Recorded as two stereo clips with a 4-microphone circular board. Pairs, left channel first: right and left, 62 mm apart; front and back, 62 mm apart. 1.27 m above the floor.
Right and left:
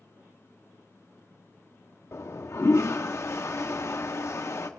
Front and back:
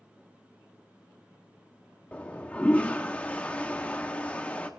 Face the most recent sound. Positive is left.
turn(degrees=-60)